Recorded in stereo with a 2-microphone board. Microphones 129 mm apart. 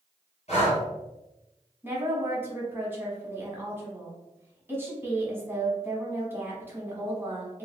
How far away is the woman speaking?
About 1.1 m.